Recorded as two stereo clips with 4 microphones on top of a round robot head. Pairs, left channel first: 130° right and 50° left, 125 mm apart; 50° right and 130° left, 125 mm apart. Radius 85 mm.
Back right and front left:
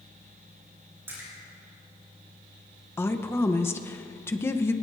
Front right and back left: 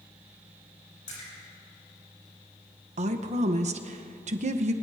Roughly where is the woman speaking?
Behind.